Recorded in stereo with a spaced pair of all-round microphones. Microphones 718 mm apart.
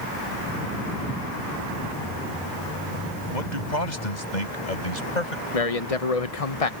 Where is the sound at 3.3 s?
80° left; by 5.4 s 85° left.